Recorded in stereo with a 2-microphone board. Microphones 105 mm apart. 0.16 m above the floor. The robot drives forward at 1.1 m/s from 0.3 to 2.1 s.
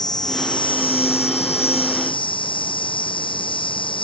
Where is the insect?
40° left (ahead or behind); by 4.0 s 55° left (ahead or behind).